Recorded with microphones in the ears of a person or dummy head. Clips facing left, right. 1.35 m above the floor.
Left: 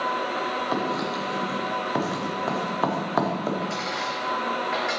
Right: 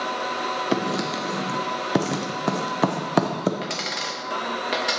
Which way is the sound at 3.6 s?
45° right (ahead or behind).